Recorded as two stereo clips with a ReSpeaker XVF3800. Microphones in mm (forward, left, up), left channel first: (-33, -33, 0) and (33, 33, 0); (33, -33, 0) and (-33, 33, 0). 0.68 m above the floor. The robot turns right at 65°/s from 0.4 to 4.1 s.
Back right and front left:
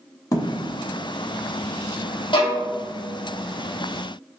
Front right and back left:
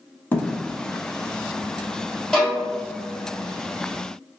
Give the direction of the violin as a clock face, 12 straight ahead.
4 o'clock.